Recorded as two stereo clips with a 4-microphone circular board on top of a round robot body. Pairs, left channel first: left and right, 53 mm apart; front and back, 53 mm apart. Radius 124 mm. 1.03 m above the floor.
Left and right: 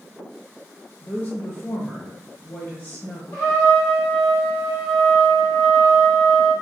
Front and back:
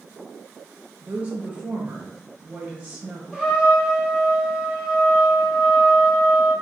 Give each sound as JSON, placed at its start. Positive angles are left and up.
{"t": 1.0, "sound": "a woman speaking", "azimuth_deg": 135, "distance_m": 0.8}
{"t": 3.3, "sound": "a trumpet", "azimuth_deg": 100, "distance_m": 1.6}